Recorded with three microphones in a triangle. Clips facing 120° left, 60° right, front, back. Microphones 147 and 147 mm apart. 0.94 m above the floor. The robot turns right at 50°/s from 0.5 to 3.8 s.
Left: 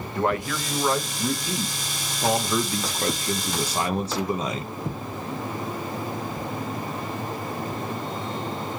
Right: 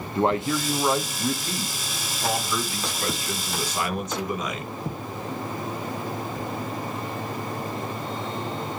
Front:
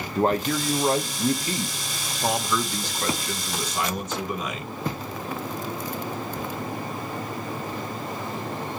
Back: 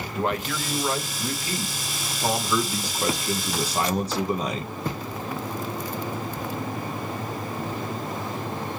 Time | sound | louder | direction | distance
0.1 | a man speaking | right 3 dB, front 5 dB | 10° right | 0.5 m